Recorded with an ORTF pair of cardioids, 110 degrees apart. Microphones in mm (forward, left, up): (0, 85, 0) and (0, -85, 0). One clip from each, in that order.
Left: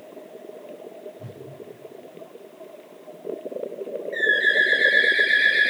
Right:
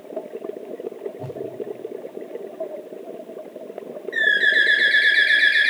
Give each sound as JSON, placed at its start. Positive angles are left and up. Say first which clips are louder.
{"t": 1.2, "sound": "a whoosh", "louder": "right 9 dB", "azimuth_deg": -40, "distance_m": 3.5}
{"t": 4.1, "sound": "a bird", "louder": "right 2 dB", "azimuth_deg": -40, "distance_m": 3.0}